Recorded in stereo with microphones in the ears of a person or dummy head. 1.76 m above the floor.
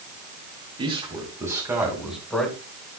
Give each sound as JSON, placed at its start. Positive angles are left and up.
{"t": 0.8, "sound": "a man speaking", "side_deg": -30, "distance_m": 2.5}